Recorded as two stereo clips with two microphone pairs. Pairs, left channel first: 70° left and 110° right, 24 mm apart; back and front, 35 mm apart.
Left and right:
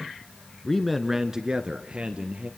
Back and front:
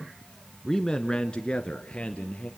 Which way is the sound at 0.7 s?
115° left.